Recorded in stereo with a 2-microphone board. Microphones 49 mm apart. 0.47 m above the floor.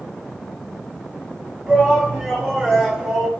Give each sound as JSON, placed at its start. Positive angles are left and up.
{"t": 1.7, "sound": "a shout", "side_deg": 5, "distance_m": 2.5}